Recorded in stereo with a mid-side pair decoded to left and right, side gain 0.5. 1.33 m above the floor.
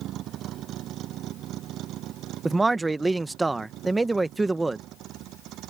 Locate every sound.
0.0 s a vehicle: 70° right; by 5.7 s 75° right
2.5 s a man speaking: 25° right